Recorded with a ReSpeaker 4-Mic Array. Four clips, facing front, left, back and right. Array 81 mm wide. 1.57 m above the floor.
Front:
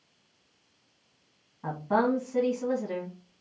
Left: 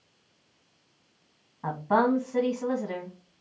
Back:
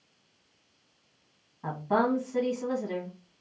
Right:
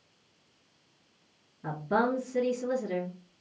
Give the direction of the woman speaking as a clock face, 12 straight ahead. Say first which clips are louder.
Left 4 dB, front 1 dB; 9 o'clock.